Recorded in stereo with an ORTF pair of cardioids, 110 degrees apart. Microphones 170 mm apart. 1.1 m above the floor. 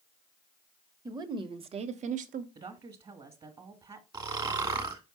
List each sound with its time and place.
1.1 s a woman speaking: 25° right, 1.3 m; by 2.5 s 65° right, 1.0 m
2.5 s a woman speaking: 30° right, 1.6 m
4.1 s snoring: 25° right, 1.5 m